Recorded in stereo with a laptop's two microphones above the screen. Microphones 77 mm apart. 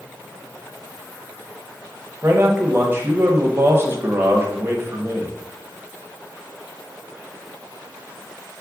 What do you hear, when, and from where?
2.2 s a man speaking: 30° right (ahead or behind), 0.9 m